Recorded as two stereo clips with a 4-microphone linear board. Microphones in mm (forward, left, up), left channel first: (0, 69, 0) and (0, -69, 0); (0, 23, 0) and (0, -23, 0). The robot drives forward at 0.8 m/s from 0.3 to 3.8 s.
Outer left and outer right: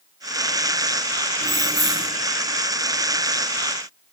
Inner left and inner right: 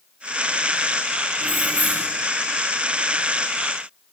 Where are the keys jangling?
40° left (ahead or behind), 6 m; by 2.1 s 45° left (ahead or behind), 5.5 m.